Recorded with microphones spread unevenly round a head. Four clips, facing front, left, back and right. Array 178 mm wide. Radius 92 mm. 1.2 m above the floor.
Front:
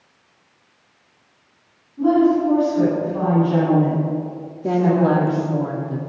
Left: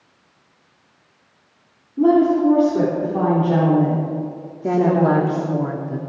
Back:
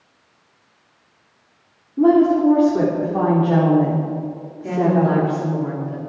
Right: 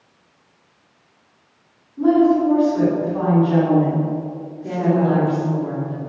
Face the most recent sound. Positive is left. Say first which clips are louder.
# left 2 dB, front 1 dB
turn(degrees=55)